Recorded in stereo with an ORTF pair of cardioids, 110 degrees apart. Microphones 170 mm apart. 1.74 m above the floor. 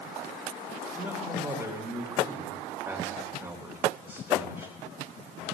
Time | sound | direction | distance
0.9 | a man speaking | 10° right | 3 m